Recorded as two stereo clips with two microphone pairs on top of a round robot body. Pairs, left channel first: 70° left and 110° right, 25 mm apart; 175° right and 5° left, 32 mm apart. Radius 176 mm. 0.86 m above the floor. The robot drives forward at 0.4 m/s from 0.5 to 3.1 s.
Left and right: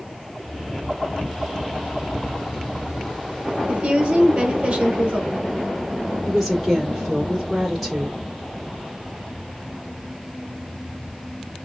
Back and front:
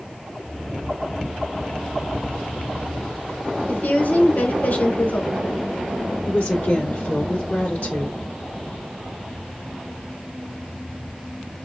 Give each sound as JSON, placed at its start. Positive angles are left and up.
{"t": 3.7, "sound": "a woman speaking", "azimuth_deg": -160, "distance_m": 3.0}
{"t": 6.2, "sound": "a woman speaking", "azimuth_deg": 165, "distance_m": 3.5}